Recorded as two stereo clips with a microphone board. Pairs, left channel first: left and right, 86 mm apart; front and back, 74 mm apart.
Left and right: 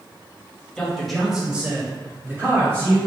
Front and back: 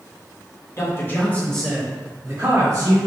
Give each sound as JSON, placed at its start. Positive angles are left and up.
{"t": 0.8, "sound": "a man speaking", "azimuth_deg": 10, "distance_m": 1.3}